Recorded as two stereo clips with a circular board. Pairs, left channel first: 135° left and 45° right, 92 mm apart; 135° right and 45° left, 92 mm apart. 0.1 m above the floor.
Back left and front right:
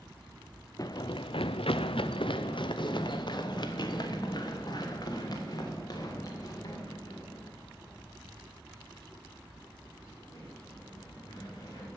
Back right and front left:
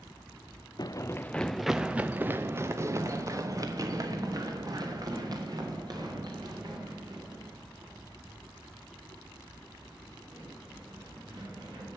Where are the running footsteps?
175° right, 0.5 m; by 11.9 s 85° left, 6.5 m.